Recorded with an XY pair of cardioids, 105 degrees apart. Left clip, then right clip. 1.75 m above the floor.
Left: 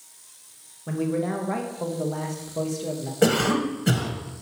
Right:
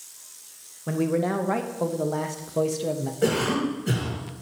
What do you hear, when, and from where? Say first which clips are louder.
0.9 s a man speaking: right 2 dB; 25° right, 0.9 m
3.2 s a cough: left 3 dB; 70° left, 1.9 m